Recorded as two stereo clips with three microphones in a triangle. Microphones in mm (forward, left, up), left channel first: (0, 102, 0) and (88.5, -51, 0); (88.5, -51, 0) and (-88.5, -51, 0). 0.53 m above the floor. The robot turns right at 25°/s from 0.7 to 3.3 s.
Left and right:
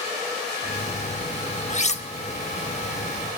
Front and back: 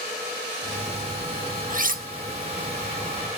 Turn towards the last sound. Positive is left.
turn(degrees=-165)